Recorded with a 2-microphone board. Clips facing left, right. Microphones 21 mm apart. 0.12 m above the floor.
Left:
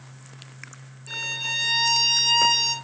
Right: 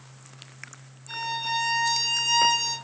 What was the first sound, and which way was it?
A violin, 60° left (ahead or behind).